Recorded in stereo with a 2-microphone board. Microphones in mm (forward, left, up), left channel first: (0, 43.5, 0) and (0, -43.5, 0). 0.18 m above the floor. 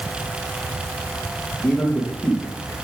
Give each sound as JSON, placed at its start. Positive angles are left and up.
{"t": 1.6, "sound": "a man speaking", "side_deg": 10, "distance_m": 3.5}